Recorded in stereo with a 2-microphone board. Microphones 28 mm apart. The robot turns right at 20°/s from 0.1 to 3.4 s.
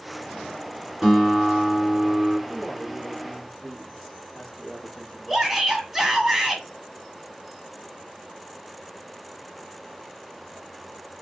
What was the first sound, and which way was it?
A guitar, 10° right (ahead or behind).